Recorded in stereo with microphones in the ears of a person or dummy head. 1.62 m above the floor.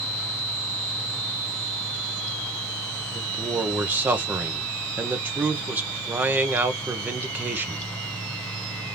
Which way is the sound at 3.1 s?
10° right (ahead or behind).